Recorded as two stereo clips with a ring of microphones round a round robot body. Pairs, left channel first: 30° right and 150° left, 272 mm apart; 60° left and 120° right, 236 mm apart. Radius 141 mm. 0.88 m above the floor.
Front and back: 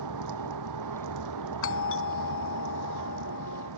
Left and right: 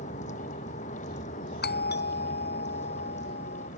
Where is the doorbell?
15° left.